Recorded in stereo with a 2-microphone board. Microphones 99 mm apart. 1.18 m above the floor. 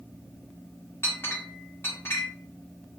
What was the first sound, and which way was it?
A clink, 25° left (ahead or behind).